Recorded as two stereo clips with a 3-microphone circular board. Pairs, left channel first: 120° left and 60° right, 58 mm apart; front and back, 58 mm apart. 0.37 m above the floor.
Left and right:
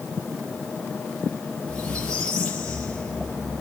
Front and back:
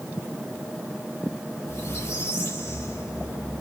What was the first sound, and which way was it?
A squeak, 45° left.